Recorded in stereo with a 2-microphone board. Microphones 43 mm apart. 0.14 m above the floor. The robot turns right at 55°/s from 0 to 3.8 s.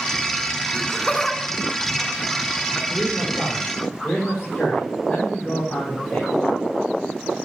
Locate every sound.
0.7 s laughter: 10° left (ahead or behind), 1.1 m
2.9 s a man speaking: 25° right, 7.5 m; by 6.3 s 25° left, 7.5 m